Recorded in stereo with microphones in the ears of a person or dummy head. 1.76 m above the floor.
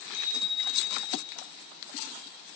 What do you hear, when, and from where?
0.1 s a bicycle bell: 70° left (ahead or behind), 8.5 m